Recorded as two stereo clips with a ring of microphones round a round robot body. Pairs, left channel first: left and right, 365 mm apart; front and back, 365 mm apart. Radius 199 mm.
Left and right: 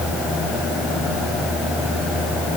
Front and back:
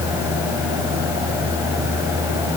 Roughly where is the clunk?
I don't hear a clunk.